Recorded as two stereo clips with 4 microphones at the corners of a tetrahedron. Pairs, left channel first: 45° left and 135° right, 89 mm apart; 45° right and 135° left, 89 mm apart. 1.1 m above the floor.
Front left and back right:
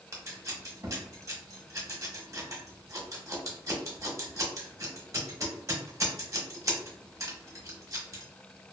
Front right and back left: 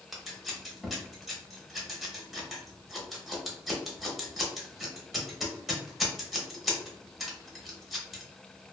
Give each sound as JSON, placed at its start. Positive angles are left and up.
{"t": 0.1, "sound": "scissors", "azimuth_deg": -140, "distance_m": 0.8}